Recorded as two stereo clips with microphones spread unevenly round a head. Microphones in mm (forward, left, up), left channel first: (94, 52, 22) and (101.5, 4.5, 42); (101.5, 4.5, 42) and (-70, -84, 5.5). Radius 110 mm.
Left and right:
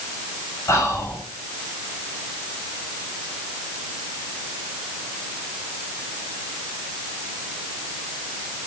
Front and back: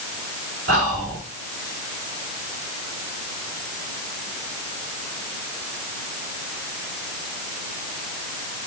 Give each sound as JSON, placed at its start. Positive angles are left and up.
{"t": 0.7, "sound": "whispering", "azimuth_deg": 150, "distance_m": 2.5}